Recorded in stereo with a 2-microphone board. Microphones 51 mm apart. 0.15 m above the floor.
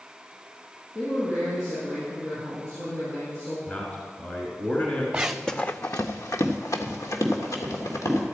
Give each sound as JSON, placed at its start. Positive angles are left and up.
{"t": 0.9, "sound": "a man speaking", "side_deg": 70, "distance_m": 5.0}
{"t": 3.7, "sound": "a man speaking", "side_deg": 30, "distance_m": 1.7}
{"t": 5.1, "sound": "running footsteps", "side_deg": -20, "distance_m": 0.7}